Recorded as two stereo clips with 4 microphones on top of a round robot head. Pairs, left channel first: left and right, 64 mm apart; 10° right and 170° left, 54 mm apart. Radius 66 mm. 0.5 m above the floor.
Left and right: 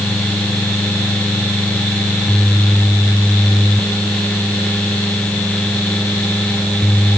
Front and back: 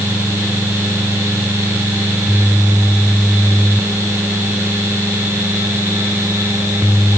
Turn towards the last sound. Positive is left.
No sound to turn to.